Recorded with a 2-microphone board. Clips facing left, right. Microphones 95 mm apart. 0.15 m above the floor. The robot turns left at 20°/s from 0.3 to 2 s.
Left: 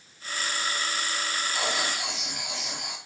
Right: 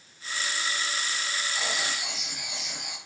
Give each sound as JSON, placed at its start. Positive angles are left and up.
{"t": 1.5, "sound": "writing", "side_deg": 80, "distance_m": 5.5}